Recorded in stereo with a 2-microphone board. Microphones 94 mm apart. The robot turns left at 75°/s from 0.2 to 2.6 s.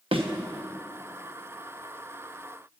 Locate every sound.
0.1 s a thud: 80° right, 1.1 m; by 0.3 s 85° right, 1.1 m